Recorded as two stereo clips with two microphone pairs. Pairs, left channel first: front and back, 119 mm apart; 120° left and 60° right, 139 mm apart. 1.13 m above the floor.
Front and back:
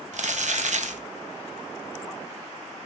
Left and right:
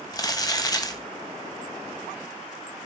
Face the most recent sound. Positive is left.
turn(degrees=180)